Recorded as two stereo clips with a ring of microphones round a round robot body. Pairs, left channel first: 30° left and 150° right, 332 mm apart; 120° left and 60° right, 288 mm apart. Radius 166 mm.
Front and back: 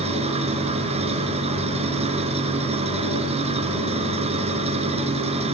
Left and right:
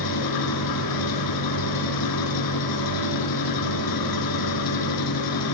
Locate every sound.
0.0 s an engine running: 140° left, 3.5 m